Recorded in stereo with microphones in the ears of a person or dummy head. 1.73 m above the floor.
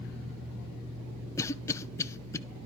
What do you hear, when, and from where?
1.4 s a cough: 20° left (ahead or behind), 0.9 m